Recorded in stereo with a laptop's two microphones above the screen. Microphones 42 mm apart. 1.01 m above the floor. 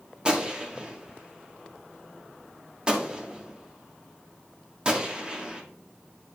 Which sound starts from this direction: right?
A gunshot, at 0.2 s.